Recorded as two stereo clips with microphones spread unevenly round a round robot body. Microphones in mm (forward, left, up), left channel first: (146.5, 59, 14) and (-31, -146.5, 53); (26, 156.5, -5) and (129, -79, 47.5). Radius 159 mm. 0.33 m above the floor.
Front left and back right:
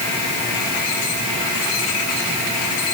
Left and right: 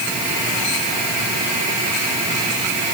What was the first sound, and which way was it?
Only background noise.